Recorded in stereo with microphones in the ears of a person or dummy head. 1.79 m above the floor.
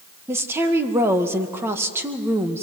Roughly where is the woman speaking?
Centre.